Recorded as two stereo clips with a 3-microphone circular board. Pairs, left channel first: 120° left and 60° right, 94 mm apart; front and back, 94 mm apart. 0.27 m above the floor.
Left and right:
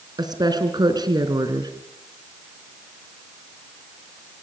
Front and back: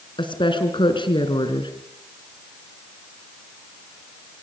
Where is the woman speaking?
20° right, 3.5 m.